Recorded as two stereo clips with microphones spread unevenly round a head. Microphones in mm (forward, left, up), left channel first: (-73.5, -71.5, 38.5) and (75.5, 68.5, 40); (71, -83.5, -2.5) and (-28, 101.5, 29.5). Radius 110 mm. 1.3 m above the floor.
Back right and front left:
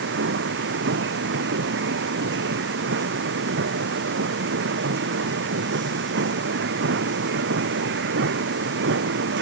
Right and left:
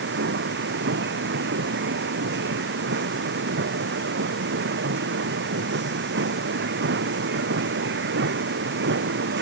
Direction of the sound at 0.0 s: 80° left.